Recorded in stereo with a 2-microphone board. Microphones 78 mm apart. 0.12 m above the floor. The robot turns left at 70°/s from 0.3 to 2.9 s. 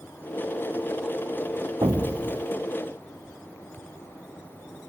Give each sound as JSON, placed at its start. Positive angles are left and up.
{"t": 1.8, "sound": "an explosion", "azimuth_deg": -65}